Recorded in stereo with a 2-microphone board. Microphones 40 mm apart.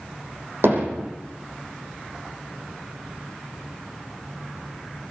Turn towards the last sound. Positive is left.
turn(degrees=-75)  # may be behind; listen again after turning